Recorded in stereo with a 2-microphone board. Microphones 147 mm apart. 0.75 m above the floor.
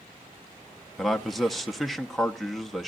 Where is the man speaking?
Centre (ahead or behind), 0.6 m.